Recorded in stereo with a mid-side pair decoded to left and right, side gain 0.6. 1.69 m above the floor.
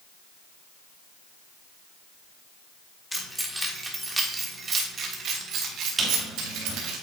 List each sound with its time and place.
3.1 s keys jangling: 5° left, 2.5 m; by 7.0 s 75° right, 3 m
6.0 s a squeak: 30° right, 4 m